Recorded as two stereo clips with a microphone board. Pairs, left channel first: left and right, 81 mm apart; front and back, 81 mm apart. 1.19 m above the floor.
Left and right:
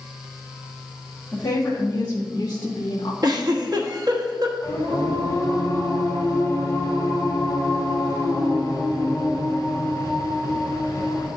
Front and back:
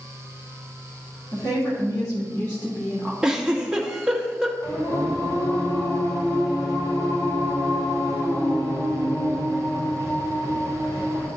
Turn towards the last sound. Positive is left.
turn(degrees=35)